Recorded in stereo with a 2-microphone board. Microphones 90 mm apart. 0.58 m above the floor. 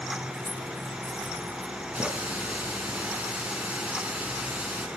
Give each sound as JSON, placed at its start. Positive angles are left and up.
{"t": 0.3, "sound": "keys jangling", "side_deg": 15, "distance_m": 0.9}
{"t": 1.9, "sound": "a running tap", "side_deg": -15, "distance_m": 4.5}